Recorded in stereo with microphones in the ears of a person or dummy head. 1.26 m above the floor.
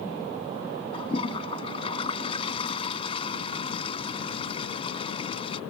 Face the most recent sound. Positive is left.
turn(degrees=35)  # may be behind; listen again after turning